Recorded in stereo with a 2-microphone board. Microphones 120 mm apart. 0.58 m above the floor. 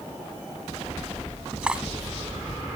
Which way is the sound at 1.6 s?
10° right (ahead or behind).